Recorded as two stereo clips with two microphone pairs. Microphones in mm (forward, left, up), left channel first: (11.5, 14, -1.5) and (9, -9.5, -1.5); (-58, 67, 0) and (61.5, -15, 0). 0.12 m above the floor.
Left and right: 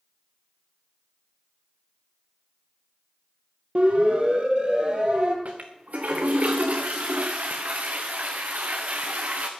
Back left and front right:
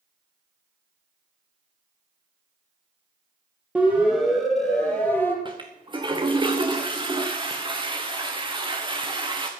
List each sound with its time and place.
3.8 s a siren: 110° right, 4 m; by 5.3 s 140° right, 4 m
5.5 s a toilet flushing: 90° right, 2.5 m